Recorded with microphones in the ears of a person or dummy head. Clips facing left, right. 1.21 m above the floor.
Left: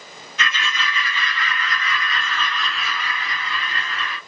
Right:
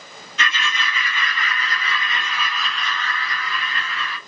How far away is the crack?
No crack in this recording.